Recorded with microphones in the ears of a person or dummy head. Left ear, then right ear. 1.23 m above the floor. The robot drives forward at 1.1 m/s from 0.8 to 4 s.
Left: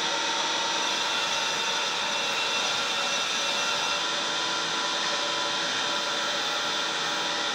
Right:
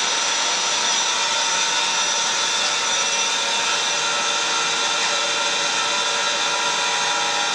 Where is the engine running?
75° right (ahead or behind), 5.5 m; by 7.6 s 70° right (ahead or behind), 6 m.